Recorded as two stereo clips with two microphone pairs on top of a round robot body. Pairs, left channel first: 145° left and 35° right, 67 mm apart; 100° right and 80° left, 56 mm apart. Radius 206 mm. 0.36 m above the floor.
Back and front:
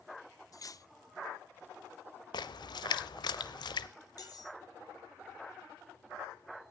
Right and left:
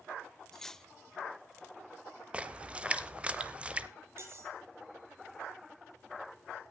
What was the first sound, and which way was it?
Cutlery clinking, 175° left.